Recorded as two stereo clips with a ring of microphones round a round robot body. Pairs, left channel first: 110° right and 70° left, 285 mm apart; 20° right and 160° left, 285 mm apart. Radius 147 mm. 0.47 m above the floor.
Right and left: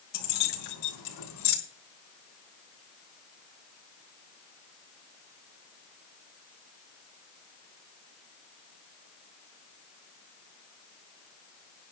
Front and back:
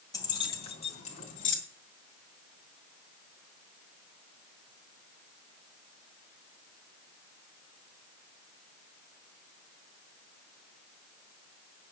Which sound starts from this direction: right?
Keys jangling, at 0.1 s.